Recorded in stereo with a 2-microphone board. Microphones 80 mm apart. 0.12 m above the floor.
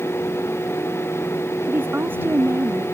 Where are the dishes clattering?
I don't hear dishes clattering.